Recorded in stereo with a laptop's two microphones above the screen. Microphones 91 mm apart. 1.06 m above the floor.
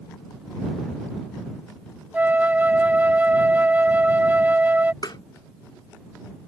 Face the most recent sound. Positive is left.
turn(degrees=55)  # may be behind; listen again after turning